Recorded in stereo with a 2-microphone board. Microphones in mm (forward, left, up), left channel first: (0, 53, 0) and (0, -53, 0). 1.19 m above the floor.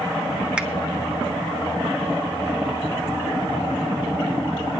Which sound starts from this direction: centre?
A finger snap, at 0.6 s.